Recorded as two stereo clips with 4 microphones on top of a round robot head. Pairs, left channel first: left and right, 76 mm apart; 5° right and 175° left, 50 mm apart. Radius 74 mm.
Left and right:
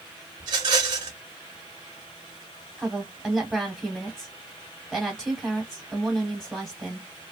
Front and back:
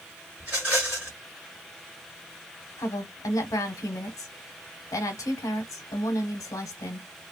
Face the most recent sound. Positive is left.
turn(degrees=-5)